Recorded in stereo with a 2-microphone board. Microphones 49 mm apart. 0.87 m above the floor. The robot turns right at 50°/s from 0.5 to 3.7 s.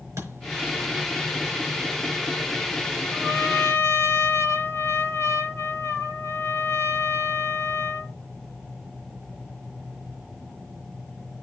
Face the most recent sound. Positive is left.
turn(degrees=75)  # may be behind; listen again after turning